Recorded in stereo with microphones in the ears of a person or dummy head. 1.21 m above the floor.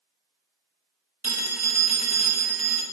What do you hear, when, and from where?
1.2 s a phone ringing: 10° right (ahead or behind), 1.1 m